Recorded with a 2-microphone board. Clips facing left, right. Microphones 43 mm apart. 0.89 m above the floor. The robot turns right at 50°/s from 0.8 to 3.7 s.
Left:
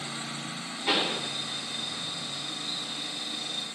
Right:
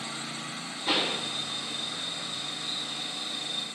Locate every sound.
0.9 s a pop: 45° left (ahead or behind), 1.9 m; by 1.2 s 30° left (ahead or behind), 1.9 m